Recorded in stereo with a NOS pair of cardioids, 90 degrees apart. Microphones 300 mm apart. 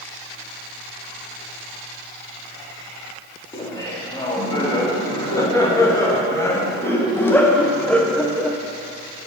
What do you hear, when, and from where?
3.5 s laughter: 15° left, 4.5 m; by 8.6 s straight ahead, 1.3 m